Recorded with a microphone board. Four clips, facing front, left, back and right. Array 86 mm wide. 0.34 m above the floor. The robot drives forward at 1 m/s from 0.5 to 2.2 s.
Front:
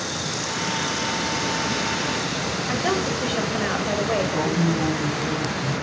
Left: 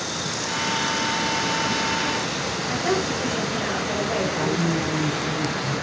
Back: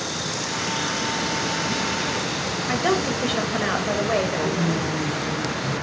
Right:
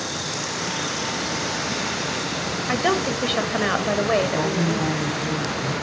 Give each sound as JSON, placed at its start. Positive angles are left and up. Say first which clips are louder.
{"t": 2.7, "sound": "a woman speaking", "louder": "right 3 dB, back 2 dB", "azimuth_deg": -105, "distance_m": 1.7}
{"t": 4.2, "sound": "a woman speaking", "louder": "right 1 dB, front 1 dB", "azimuth_deg": -40, "distance_m": 1.7}